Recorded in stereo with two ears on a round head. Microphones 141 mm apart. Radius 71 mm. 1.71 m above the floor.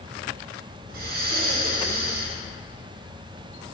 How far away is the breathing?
About 1.3 m.